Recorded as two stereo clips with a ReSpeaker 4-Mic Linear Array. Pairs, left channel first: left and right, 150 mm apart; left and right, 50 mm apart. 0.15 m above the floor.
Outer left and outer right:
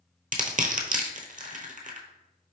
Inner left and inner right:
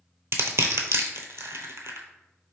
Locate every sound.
0.3 s crushing: 75° right (ahead or behind), 0.7 m